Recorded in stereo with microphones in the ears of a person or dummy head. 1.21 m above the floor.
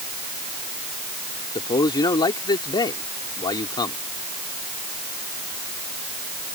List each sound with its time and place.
1.6 s a man speaking: 25° left (ahead or behind)